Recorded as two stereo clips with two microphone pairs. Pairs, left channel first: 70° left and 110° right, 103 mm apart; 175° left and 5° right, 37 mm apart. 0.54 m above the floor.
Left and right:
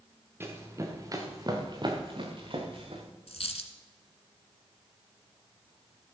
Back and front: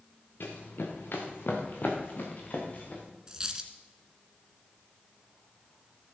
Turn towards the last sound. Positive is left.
turn(degrees=65)